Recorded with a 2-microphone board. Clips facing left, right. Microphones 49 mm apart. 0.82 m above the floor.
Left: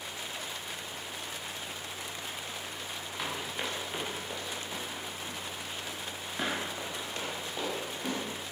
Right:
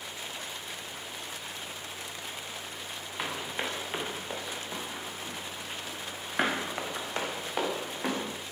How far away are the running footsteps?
About 3.5 m.